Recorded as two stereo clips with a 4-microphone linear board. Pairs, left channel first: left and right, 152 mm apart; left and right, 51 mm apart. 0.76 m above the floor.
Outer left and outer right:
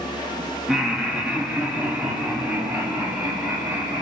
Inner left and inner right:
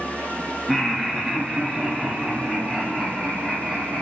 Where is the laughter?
5° right (ahead or behind), 1.3 m; by 4.0 s 10° right (ahead or behind), 4 m.